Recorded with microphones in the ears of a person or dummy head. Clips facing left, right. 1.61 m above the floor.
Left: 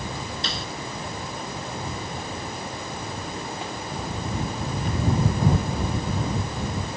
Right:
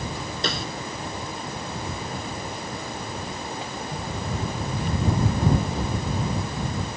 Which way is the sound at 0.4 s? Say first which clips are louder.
Right 4 dB; 50° right (ahead or behind).